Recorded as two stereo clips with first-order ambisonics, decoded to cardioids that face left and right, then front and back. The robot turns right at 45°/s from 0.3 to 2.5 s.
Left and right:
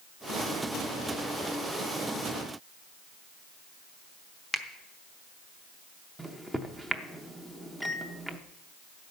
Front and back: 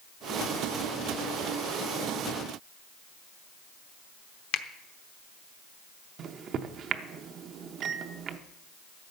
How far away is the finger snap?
About 0.8 m.